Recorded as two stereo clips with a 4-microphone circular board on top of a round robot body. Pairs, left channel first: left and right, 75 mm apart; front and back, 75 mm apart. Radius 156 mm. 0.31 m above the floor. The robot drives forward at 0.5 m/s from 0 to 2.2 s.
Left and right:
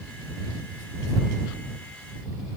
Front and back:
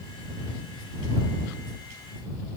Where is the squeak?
I don't hear a squeak.